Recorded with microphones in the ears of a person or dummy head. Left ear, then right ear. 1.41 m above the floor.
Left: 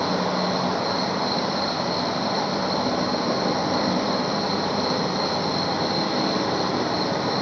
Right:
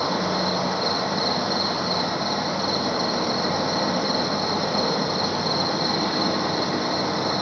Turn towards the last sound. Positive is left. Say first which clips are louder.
# even
turn(degrees=-65)  # may be behind; listen again after turning